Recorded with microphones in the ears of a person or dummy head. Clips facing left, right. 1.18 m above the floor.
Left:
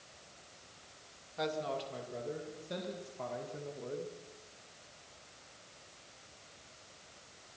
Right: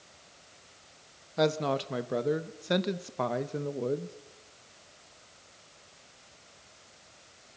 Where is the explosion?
I don't hear an explosion.